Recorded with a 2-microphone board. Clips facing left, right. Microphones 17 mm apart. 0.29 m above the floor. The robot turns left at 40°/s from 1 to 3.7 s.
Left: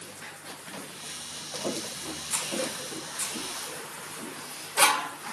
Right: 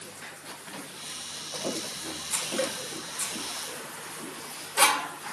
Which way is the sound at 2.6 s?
60° right (ahead or behind).